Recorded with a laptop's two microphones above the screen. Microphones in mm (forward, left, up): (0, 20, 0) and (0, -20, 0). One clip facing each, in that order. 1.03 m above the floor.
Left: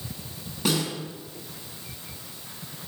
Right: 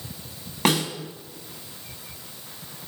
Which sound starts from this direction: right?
A snare drum, at 0.7 s.